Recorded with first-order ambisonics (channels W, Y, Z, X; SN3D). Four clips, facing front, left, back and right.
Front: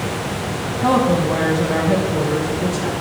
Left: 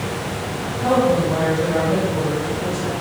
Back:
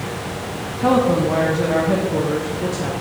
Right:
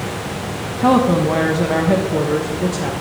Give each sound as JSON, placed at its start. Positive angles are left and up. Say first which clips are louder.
{"t": 0.8, "sound": "a woman speaking", "louder": "right 3 dB, even", "azimuth_deg": -100, "distance_m": 0.6}